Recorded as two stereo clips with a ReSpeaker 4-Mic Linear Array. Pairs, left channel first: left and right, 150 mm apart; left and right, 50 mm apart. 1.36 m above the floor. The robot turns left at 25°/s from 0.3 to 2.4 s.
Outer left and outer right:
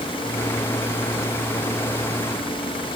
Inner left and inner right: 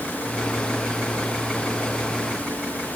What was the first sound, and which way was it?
Only background noise.